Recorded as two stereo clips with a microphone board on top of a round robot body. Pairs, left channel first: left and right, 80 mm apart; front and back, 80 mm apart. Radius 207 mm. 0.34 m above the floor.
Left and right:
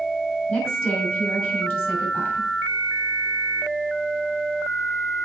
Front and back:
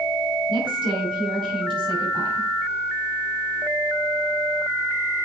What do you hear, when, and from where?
0.5 s a woman speaking: 160° left, 5.5 m